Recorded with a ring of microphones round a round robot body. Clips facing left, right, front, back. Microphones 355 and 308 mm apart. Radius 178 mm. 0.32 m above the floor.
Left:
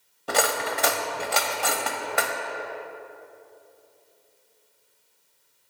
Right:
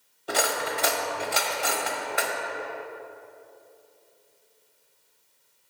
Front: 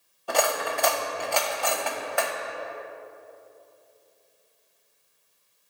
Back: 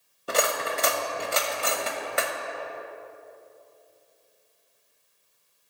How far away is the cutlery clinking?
About 0.8 m.